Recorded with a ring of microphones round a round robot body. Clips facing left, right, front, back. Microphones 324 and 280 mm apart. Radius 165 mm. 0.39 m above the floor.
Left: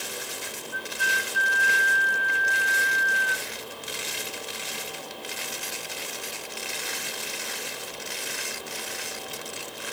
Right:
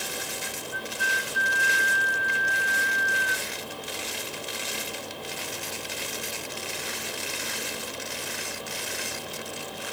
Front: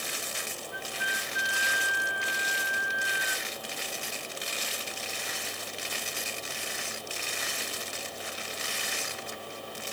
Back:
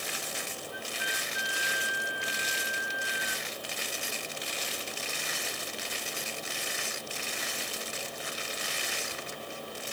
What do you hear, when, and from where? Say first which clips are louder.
0.7 s a flute: right 1 dB, even; 35° left